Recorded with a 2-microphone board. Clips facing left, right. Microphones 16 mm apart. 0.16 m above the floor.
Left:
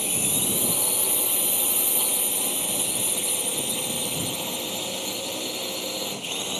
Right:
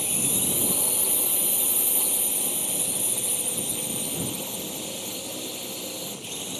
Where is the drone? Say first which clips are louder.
Left 2 dB; 15° left (ahead or behind); by 6.6 s 45° left (ahead or behind).